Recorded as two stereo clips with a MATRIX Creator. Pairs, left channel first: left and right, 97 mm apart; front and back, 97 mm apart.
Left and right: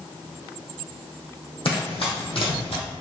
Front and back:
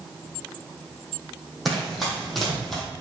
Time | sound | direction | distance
1.6 | running footsteps | 90° left | 3.5 m